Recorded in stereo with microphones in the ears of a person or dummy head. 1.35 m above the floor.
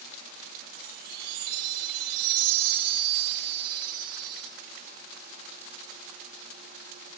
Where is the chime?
50° right (ahead or behind), 1.4 m.